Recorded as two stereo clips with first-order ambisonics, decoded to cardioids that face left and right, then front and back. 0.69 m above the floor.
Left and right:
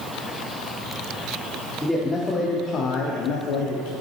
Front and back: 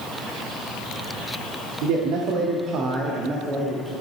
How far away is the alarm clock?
No alarm clock in this recording.